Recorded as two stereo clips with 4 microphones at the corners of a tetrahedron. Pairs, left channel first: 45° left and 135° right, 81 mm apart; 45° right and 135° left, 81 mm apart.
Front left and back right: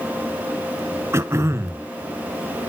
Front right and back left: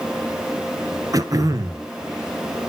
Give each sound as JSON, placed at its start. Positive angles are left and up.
{"t": 1.1, "sound": "throat clearing", "azimuth_deg": 170, "distance_m": 0.9}